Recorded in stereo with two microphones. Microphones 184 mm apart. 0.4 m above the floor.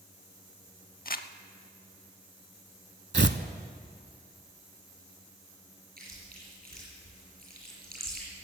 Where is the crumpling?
55° left (ahead or behind), 0.5 m.